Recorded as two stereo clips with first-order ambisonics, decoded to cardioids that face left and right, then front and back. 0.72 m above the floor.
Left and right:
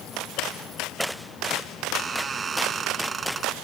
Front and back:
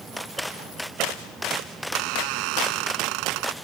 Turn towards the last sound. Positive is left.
turn(degrees=-160)